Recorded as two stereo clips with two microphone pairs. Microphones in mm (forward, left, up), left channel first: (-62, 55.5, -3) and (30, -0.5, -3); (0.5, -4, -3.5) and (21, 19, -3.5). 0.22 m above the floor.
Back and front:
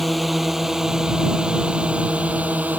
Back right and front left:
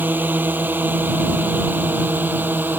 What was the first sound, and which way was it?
A drone, 60° left.